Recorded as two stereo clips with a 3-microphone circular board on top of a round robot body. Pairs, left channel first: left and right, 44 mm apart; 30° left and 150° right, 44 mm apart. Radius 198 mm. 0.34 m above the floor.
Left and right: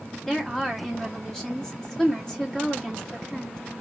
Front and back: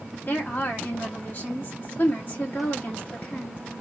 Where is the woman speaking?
15° left, 1.6 m.